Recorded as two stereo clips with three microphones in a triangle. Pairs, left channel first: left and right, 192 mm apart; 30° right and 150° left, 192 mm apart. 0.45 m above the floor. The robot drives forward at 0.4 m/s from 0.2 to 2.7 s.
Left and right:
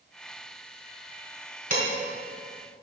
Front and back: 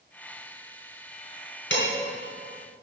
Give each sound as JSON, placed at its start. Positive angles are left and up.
{"t": 1.7, "sound": "dishes clattering", "azimuth_deg": -45, "distance_m": 3.0}